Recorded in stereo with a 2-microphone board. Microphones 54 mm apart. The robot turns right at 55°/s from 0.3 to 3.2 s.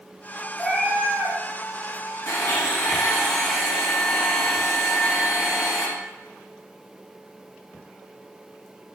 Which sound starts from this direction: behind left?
A blender, at 2.3 s.